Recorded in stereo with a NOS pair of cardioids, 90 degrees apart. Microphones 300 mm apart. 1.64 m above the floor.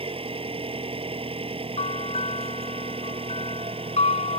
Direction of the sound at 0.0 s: 20° right.